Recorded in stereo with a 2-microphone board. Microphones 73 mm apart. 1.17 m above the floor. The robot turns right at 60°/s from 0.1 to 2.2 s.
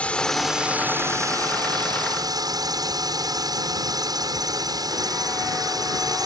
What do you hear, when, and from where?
0.0 s a drone: 160° left; by 6.3 s 75° right